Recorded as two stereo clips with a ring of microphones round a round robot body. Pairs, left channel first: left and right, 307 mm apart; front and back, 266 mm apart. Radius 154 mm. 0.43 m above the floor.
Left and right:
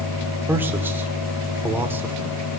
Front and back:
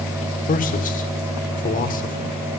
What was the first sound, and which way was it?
A man speaking, 10° right.